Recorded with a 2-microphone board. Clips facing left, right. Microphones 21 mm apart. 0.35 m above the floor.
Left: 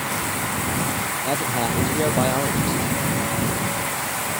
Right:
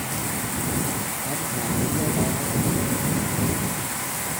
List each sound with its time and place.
1.2 s a man speaking: 45° left (ahead or behind)